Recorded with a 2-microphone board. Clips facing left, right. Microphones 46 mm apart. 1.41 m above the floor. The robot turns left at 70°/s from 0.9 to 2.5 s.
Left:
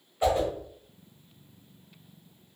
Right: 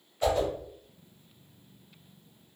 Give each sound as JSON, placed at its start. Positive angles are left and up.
{"t": 0.2, "sound": "a whoosh", "side_deg": 15, "distance_m": 1.2}